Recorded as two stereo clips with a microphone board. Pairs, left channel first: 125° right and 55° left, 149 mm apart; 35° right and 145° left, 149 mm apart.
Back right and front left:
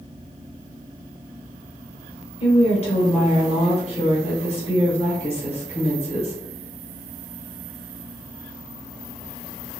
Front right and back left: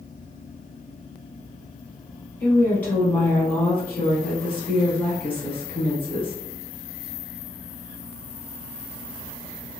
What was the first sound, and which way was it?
A woman speaking, 105° right.